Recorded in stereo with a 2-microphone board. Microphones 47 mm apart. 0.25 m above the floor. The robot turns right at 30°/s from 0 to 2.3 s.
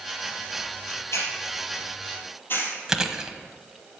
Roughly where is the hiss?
Left.